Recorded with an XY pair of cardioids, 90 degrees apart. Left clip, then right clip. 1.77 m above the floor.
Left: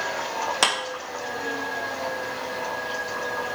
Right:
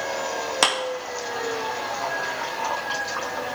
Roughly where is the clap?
Ahead.